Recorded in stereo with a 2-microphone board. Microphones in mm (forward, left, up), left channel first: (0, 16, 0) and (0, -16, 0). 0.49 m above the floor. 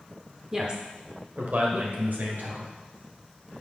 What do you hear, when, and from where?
0.5 s a woman speaking: 15° right (ahead or behind), 0.9 m; by 2.7 s 70° right (ahead or behind), 2.5 m